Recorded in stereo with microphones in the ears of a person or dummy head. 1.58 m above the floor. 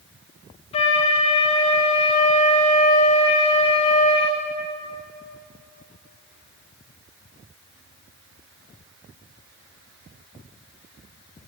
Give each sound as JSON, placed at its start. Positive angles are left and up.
{"t": 0.7, "sound": "a flute", "side_deg": 35, "distance_m": 1.1}